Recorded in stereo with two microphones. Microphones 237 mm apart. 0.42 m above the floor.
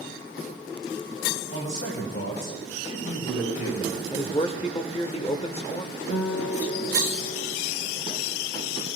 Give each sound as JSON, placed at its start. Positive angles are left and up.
{"t": 1.5, "sound": "a man speaking", "side_deg": 65, "distance_m": 3.0}
{"t": 4.1, "sound": "a man speaking", "side_deg": 25, "distance_m": 0.9}
{"t": 6.1, "sound": "a guitar", "side_deg": 55, "distance_m": 1.2}